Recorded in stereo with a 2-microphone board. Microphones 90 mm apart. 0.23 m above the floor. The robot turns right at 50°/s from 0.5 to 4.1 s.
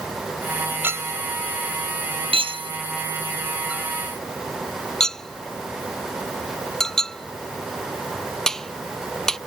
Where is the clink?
25° right (ahead or behind); by 9.4 s 5° left (ahead or behind).